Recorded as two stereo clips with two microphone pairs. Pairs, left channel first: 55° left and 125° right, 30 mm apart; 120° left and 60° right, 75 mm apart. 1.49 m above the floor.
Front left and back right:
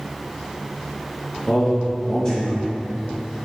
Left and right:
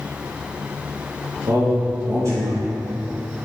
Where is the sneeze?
I don't hear a sneeze.